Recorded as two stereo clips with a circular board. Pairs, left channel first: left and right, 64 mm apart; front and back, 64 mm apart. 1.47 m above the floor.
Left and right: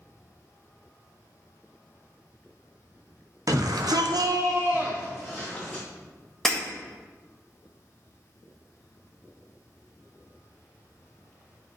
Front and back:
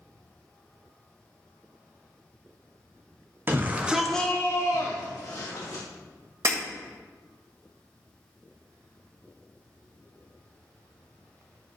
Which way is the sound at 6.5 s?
170° left.